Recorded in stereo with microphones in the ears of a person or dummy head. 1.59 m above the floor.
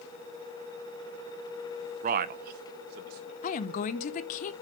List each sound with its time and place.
2.0 s a man speaking: 50° right (ahead or behind), 0.8 m; by 3.3 s 60° right (ahead or behind), 2.5 m
3.4 s a woman speaking: 50° left (ahead or behind), 0.9 m